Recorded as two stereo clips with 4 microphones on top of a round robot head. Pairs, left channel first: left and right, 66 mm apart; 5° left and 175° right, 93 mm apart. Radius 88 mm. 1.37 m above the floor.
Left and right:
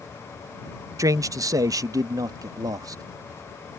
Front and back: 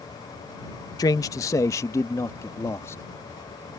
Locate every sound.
1.0 s a man speaking: 55° right; by 3.0 s 65° right